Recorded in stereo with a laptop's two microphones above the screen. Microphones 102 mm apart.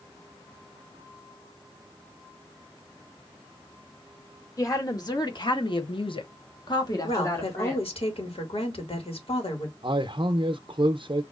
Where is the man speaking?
55° right (ahead or behind), 0.6 m.